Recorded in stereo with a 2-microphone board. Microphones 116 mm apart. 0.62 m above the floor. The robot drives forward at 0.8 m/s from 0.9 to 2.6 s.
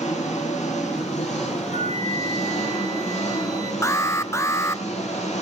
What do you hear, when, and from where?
0.0 s an engine running: 90° left, 7 m; by 5.4 s 75° left (ahead or behind), 7 m
1.7 s a flute: 80° right, 3.5 m; by 3.7 s 70° right (ahead or behind), 3.5 m
3.8 s an alarm: 25° left (ahead or behind), 0.6 m